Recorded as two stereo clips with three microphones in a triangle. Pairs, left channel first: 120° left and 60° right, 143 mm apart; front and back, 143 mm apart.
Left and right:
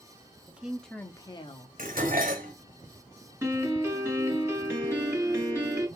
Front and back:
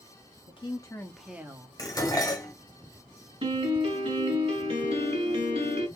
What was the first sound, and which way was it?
A woman speaking, 10° left.